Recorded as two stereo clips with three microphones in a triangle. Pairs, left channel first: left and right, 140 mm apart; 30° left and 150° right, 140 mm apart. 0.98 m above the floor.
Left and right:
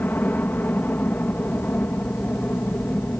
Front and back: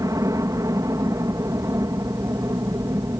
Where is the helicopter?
160° left.